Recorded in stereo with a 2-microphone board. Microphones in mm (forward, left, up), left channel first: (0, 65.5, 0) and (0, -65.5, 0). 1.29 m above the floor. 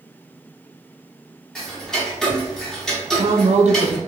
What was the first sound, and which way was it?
Ticking, 5° left (ahead or behind).